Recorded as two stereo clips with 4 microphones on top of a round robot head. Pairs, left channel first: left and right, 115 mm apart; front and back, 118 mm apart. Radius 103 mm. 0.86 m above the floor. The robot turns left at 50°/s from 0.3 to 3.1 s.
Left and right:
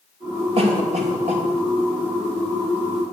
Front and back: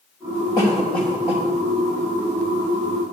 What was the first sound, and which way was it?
A cough, 60° right.